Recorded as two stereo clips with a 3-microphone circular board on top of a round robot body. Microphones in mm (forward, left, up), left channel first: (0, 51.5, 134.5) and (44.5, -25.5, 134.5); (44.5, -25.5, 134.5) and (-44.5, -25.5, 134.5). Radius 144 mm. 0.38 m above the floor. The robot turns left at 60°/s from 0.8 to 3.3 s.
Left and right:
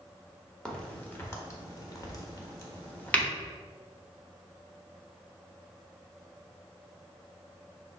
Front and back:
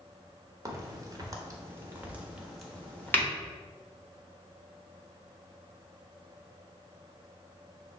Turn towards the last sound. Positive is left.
turn(degrees=45)